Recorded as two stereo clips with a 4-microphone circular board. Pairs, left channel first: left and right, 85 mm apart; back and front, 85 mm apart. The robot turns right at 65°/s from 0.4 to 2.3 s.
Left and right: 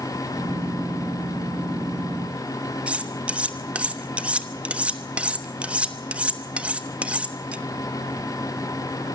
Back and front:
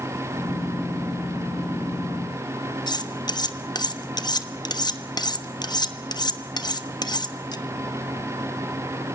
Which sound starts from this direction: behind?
Cutlery clinking, at 2.9 s.